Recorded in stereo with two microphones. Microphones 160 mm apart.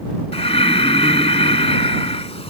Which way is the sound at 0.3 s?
40° left (ahead or behind).